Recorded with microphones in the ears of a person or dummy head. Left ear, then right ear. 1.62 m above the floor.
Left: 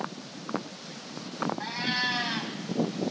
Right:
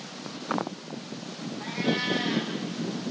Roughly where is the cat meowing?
Left.